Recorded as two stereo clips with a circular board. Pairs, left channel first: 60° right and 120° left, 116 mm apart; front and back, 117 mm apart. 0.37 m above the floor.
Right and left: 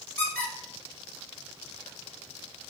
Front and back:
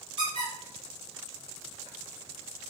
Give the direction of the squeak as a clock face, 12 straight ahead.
5 o'clock.